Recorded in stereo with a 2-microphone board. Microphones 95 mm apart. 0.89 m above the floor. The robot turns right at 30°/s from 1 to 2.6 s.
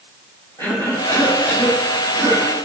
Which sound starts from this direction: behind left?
A cough, at 0.6 s.